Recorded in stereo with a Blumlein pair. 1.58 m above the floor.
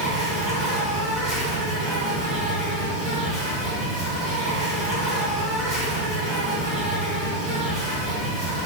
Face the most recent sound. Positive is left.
turn(degrees=-10)